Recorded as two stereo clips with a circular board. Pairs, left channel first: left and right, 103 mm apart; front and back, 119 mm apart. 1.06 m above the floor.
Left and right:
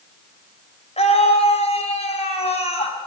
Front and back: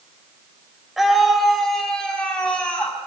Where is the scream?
90° left, 4 m; by 3.0 s 80° left, 7 m.